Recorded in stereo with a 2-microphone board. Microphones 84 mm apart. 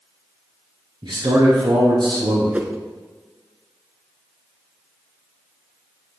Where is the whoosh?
20° right (ahead or behind), 0.7 m.